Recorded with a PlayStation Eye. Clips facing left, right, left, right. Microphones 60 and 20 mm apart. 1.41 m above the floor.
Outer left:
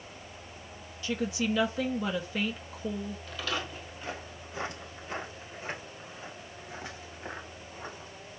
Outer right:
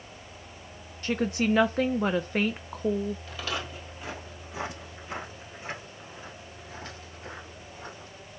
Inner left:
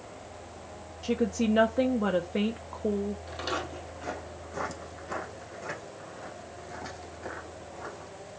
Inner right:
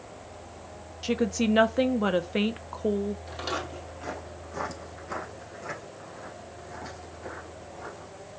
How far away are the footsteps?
About 2 m.